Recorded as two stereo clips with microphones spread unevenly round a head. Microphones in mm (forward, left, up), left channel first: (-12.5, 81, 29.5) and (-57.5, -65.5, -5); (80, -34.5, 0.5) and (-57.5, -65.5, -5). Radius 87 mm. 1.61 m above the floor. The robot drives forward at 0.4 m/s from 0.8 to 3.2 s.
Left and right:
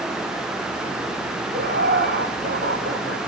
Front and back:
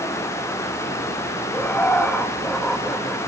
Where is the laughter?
65° right, 2.5 m; by 3.2 s 80° right, 2.5 m.